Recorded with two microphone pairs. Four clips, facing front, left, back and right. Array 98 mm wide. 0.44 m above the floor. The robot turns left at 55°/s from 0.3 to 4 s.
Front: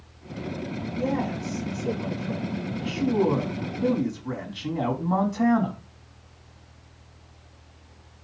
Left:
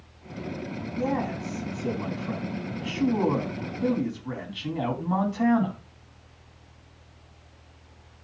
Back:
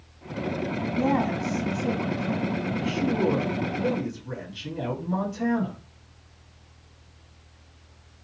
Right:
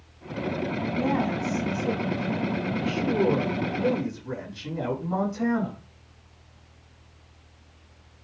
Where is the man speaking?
170° right, 4 m; by 5.8 s 25° left, 4 m.